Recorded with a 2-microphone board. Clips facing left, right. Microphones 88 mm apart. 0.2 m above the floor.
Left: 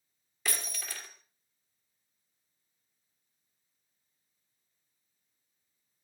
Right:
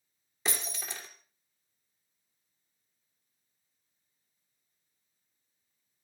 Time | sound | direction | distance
0.5 | breaking glass | 20° right (ahead or behind) | 3 m